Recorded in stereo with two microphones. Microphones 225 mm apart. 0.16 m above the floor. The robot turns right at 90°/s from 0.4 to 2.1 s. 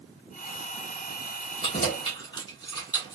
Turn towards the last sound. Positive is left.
turn(degrees=20)  # may be behind; listen again after turning